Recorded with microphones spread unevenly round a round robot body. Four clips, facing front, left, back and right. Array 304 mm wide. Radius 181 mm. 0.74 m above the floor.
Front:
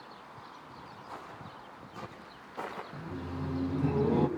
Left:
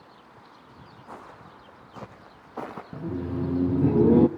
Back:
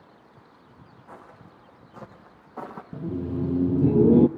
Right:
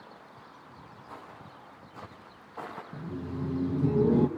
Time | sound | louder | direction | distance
1.1 | footsteps | left 4 dB, even | 100° left | 3.5 m
2.9 | laughter | left 8 dB, back 10 dB | 150° left | 0.7 m